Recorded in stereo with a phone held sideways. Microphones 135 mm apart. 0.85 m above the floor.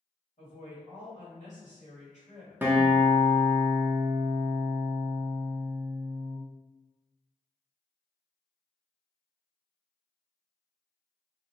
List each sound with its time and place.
0.4 s a woman speaking: 60° left (ahead or behind), 1.6 m
2.6 s a guitar: 15° right (ahead or behind), 0.6 m